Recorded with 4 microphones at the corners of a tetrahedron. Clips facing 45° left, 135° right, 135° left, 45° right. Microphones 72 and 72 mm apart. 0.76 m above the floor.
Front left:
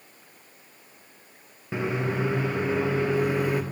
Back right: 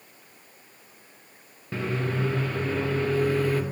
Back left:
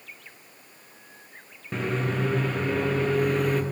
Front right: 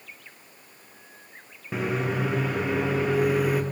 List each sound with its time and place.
1.7 s a microwave: 20° left, 0.6 m